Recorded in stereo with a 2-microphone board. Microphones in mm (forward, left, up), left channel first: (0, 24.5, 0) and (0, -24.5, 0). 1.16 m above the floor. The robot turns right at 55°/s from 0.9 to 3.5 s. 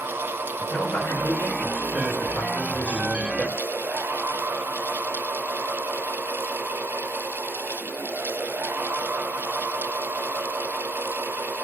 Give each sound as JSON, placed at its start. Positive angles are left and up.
{"t": 0.6, "sound": "a man speaking", "azimuth_deg": 40, "distance_m": 5.5}